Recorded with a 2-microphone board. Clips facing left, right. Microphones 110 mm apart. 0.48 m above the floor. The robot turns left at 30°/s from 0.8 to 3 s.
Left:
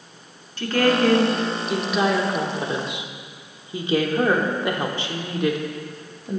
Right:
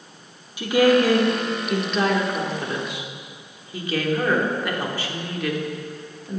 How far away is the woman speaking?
About 0.9 m.